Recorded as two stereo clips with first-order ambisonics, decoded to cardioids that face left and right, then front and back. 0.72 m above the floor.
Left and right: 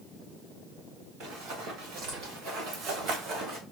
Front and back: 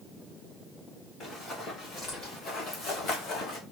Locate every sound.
1.2 s running footsteps: 70° right, 3.5 m; by 3.6 s 35° right, 2.0 m